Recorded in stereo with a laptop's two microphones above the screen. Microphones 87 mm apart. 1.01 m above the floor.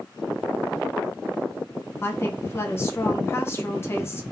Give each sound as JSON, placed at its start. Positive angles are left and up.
{"t": 2.0, "sound": "a woman speaking", "side_deg": 25, "distance_m": 0.6}